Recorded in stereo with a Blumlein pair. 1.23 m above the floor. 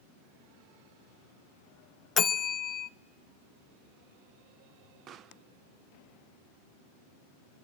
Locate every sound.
2.2 s a bell: 25° left, 0.6 m
5.1 s a pop: 30° right, 0.5 m